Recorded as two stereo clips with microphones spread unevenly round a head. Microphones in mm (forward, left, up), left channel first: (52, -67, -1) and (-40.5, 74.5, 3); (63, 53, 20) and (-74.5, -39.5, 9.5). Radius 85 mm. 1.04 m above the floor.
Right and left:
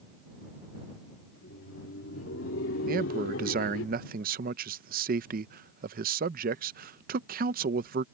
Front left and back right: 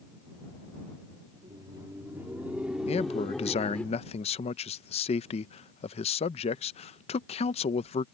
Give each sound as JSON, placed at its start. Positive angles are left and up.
{"t": 1.3, "sound": "laughter", "azimuth_deg": -85}
{"t": 2.9, "sound": "a man speaking", "azimuth_deg": 85}